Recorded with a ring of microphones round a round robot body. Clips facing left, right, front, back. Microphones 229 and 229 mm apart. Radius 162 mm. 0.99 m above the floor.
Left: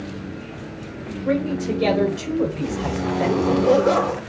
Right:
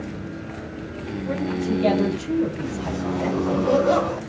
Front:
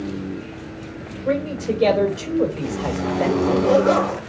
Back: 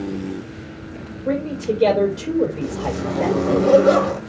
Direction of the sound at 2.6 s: 140° left.